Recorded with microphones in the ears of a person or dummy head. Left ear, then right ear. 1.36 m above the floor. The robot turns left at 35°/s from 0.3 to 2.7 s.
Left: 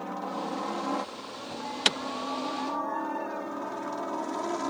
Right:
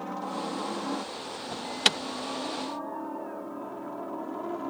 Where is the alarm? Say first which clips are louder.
Right 2 dB; 15° right (ahead or behind); by 2.0 s centre (ahead or behind).